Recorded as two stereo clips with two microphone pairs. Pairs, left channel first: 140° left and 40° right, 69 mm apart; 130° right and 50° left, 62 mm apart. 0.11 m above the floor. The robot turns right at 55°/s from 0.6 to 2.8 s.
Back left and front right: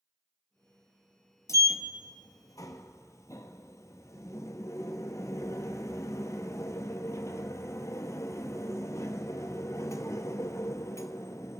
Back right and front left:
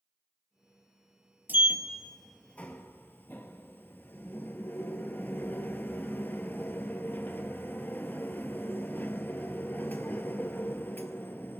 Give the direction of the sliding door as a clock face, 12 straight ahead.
8 o'clock.